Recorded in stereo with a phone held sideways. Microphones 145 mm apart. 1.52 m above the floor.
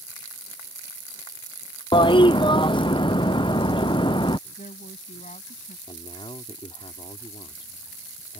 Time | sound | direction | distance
1.9 | a toilet flushing | 35° left (ahead or behind) | ?
4.6 | a woman speaking | 65° left (ahead or behind) | ?
5.9 | a man speaking | 40° left (ahead or behind) | ?